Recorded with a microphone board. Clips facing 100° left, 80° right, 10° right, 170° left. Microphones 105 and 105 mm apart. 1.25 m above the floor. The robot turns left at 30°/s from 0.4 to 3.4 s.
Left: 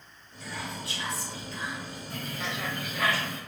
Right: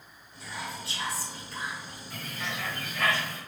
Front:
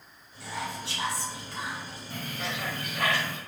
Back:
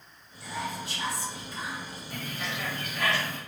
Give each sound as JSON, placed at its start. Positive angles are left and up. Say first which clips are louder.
{"t": 0.4, "sound": "whispering", "louder": "left 1 dB, back 1 dB", "azimuth_deg": 0, "distance_m": 1.1}
{"t": 2.1, "sound": "a bird", "louder": "left 1 dB, front 1 dB", "azimuth_deg": 50, "distance_m": 0.9}